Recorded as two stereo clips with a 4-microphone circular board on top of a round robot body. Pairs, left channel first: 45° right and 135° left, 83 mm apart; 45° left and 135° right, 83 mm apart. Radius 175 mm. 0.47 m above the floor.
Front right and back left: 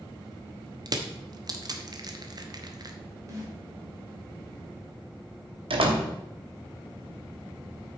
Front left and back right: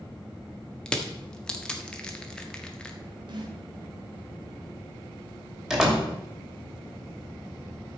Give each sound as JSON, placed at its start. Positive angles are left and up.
{"t": 0.9, "sound": "crushing", "azimuth_deg": 120, "distance_m": 1.6}
{"t": 3.3, "sound": "a snare drum", "azimuth_deg": -170, "distance_m": 2.5}
{"t": 5.7, "sound": "a door slam", "azimuth_deg": 140, "distance_m": 2.5}